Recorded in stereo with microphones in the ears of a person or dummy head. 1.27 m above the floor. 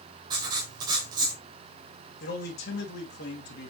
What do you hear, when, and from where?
0.3 s writing: 25° right (ahead or behind), 2.0 m
2.2 s a man speaking: 60° left (ahead or behind), 2.5 m